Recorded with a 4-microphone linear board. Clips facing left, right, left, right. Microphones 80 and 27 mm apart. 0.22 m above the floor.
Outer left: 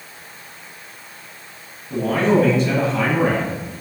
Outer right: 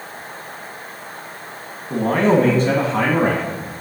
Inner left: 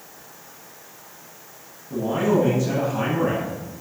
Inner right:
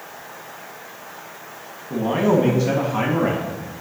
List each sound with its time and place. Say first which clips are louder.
1.9 s a man speaking: outer right 2 dB, inner right 2 dB; 35° right (ahead or behind), 1.9 m; by 3.5 s 55° right (ahead or behind), 2.5 m